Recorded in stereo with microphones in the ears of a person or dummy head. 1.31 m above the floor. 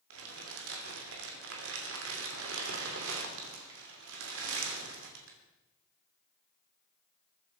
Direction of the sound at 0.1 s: 85° right.